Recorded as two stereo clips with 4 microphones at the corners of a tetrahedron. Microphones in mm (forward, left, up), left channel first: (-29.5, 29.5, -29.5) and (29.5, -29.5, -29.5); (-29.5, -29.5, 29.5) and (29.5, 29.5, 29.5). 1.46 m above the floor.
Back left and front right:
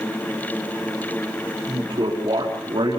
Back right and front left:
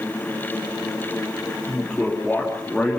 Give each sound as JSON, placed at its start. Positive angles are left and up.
{"t": 1.7, "sound": "a man speaking", "azimuth_deg": -55, "distance_m": 4.0}